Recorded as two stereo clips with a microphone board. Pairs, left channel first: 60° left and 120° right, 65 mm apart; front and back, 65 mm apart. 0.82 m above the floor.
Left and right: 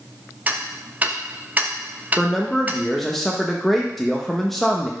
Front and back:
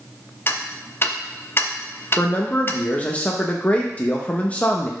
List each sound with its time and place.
0.5 s ticking: 55° right, 0.6 m
2.2 s a man speaking: 20° right, 0.7 m